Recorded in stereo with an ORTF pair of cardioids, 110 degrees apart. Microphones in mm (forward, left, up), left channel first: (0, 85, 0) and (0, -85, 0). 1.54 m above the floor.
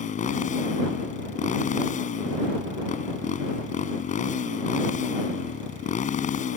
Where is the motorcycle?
45° left.